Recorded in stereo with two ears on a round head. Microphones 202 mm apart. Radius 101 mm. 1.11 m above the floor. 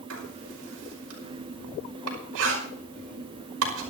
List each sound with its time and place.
0.1 s writing: 75° right (ahead or behind), 5.5 m